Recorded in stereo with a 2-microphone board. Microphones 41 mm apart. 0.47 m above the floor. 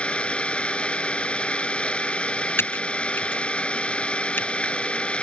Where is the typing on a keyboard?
65° left (ahead or behind).